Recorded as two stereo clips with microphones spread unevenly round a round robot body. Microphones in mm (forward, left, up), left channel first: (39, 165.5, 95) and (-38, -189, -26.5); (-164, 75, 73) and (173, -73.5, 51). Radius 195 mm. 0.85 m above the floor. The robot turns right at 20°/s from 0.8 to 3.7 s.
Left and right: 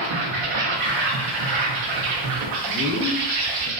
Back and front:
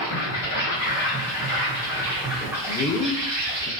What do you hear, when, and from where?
0.0 s an insect: 145° right, 0.7 m; by 3.8 s 85° right, 0.7 m
2.7 s a man speaking: 160° right, 0.8 m; by 3.7 s 140° right, 0.8 m